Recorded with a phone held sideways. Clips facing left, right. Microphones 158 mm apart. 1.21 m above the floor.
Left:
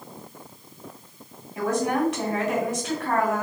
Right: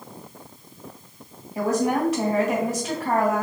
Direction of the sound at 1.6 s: 35° right (ahead or behind).